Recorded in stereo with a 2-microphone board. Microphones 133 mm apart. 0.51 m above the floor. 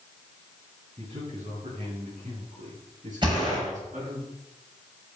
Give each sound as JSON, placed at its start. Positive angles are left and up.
{"t": 1.0, "sound": "a man speaking", "side_deg": -55, "distance_m": 4.5}
{"t": 3.2, "sound": "a gunshot", "side_deg": -35, "distance_m": 6.0}